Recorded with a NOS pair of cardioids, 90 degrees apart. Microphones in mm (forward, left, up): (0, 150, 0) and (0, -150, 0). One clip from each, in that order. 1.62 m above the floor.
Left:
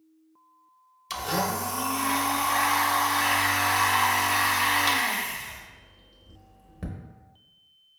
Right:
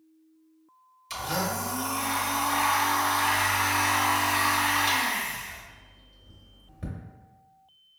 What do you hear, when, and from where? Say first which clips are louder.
1.1 s a blender: left 2 dB; 25° left, 0.7 m